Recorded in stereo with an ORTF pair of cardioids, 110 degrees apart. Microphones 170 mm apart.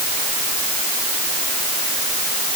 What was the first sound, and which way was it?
Only background noise.